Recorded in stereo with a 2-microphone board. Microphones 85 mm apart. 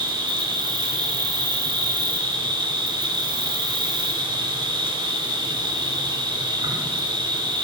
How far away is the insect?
About 1.1 m.